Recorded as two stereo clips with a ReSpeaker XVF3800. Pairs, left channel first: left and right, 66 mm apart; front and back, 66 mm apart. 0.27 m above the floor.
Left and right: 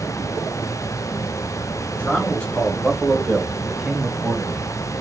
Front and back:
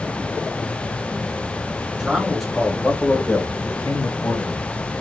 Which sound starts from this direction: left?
A man speaking, at 2.0 s.